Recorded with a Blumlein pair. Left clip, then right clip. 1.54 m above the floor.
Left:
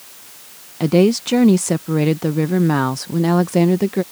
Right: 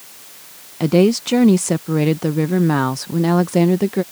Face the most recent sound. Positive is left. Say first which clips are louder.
# even
turn(degrees=0)